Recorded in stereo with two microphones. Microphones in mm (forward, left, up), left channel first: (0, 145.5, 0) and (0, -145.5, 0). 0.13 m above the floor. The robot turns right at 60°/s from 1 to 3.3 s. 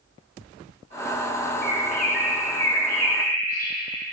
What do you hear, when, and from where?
1.6 s a bird: 35° left, 1.5 m; by 3.7 s 135° left, 1.5 m